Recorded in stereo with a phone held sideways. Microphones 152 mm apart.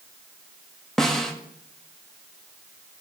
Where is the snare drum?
5° left (ahead or behind), 1.1 m.